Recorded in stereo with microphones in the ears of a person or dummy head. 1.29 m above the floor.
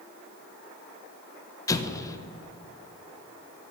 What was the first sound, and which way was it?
An explosion, 20° left (ahead or behind).